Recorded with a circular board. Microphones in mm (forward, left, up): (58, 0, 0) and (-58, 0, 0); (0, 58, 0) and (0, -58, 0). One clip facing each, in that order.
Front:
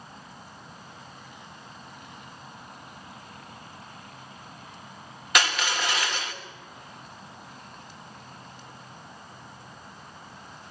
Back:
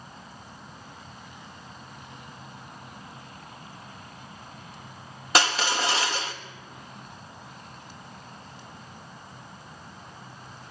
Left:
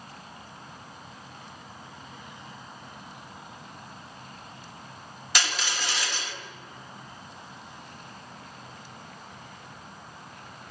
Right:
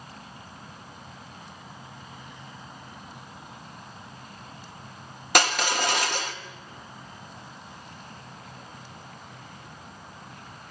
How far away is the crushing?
About 1.7 m.